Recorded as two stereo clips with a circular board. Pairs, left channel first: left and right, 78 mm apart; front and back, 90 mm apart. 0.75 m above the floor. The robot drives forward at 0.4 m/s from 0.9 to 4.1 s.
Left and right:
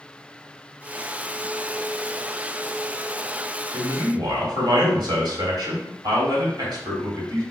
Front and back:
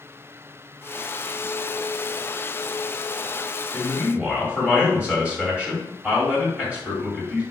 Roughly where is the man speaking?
Right.